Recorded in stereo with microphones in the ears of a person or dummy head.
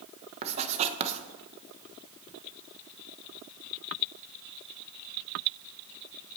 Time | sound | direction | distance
0.4 | writing | 40° right (ahead or behind) | 1.2 m